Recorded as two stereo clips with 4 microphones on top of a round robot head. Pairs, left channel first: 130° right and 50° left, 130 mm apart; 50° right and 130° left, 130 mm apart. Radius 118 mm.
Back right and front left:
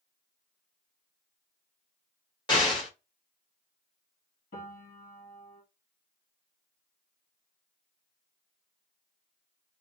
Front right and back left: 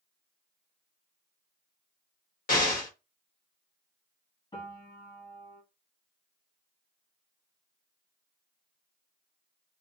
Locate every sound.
2.5 s an explosion: 70° right, 1.6 m
4.5 s a piano: 110° right, 1.7 m